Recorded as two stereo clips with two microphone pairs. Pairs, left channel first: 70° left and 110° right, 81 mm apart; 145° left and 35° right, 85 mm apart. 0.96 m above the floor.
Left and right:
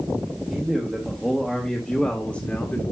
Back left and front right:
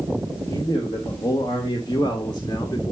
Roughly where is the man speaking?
Behind.